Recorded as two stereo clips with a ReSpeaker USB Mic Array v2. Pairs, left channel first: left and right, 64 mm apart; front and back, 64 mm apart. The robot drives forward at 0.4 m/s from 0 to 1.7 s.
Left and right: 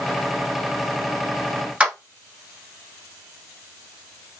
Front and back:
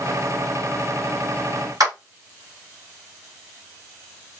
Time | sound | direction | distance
1.8 | a clap | 165° right | 1.3 m